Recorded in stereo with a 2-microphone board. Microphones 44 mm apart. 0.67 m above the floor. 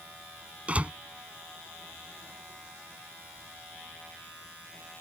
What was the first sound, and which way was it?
A door slam, 25° right (ahead or behind).